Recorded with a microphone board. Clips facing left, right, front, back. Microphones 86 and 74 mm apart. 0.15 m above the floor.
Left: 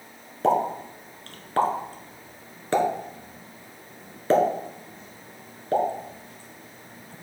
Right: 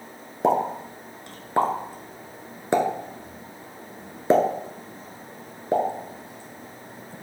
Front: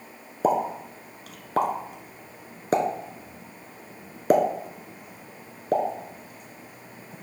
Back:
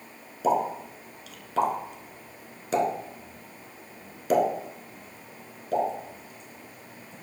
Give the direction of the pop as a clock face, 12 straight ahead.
1 o'clock.